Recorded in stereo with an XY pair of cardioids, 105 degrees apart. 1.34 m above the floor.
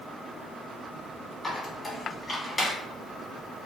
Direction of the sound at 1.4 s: 30° left.